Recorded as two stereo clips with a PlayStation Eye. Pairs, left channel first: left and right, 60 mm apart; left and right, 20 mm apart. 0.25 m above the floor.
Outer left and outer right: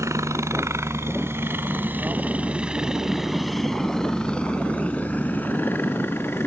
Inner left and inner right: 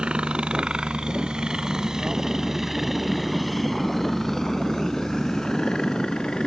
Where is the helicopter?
60° right (ahead or behind); by 6.5 s 40° left (ahead or behind).